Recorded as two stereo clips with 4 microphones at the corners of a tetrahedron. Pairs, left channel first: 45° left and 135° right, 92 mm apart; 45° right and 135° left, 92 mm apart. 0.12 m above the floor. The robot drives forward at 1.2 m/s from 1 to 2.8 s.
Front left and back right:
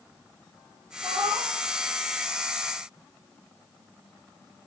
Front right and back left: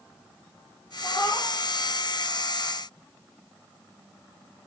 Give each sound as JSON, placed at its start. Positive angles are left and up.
{"t": 1.0, "sound": "a cat meowing", "azimuth_deg": -100, "distance_m": 4.5}